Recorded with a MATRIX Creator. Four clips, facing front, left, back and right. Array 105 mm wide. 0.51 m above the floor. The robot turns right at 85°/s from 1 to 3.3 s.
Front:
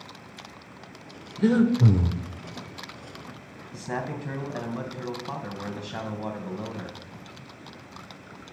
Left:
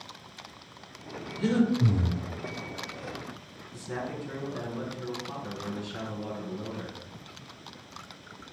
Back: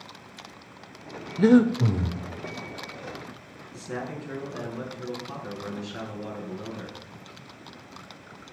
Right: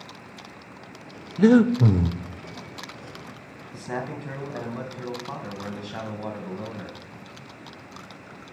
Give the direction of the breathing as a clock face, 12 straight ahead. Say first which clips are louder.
Right 9 dB, back 3 dB; 4 o'clock.